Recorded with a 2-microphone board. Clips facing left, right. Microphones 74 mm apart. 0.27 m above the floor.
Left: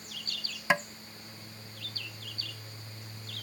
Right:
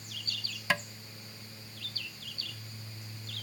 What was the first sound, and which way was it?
Tapping, 20° left (ahead or behind).